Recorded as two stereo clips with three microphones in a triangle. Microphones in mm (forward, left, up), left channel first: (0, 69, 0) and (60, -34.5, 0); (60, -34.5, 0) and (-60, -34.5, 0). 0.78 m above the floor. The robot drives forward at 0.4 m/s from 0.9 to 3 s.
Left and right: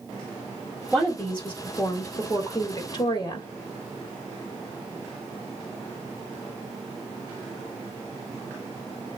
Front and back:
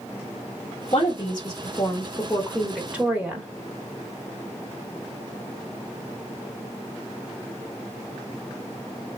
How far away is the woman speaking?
About 1.0 m.